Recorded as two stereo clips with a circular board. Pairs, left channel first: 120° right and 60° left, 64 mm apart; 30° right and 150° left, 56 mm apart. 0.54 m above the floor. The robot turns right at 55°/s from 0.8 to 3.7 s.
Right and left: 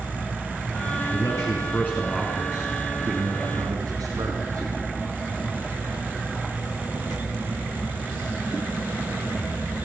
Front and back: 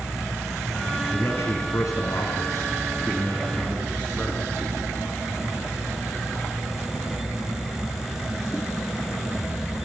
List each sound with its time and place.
1.1 s a man speaking: 95° right, 5.5 m; by 4.7 s 45° left, 5.5 m